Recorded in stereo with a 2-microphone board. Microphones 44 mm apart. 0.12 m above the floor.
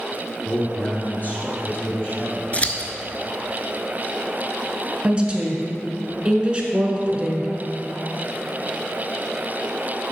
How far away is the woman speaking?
About 1.1 m.